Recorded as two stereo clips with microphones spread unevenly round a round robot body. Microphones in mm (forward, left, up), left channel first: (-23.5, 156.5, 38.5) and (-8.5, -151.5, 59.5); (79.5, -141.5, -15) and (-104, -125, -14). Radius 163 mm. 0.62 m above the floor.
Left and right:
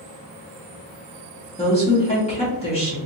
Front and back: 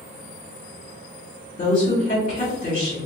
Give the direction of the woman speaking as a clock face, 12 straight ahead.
11 o'clock.